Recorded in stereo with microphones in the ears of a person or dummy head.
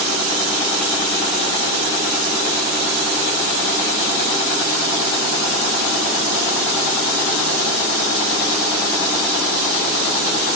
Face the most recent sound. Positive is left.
No sound to turn to.